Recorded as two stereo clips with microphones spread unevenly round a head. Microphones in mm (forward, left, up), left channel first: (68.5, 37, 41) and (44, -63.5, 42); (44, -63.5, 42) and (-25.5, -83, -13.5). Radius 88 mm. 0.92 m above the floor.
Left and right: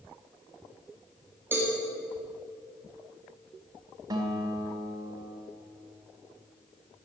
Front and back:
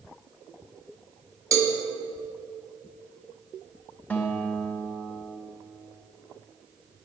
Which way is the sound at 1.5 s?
175° right.